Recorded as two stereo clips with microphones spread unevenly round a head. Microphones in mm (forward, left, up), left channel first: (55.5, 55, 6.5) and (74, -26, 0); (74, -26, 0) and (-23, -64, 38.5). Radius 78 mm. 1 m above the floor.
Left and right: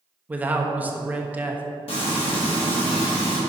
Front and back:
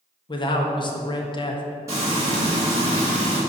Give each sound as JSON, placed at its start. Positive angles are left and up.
{"t": 0.3, "sound": "a man speaking", "azimuth_deg": -10, "distance_m": 1.2}
{"t": 1.9, "sound": "frying", "azimuth_deg": 125, "distance_m": 1.8}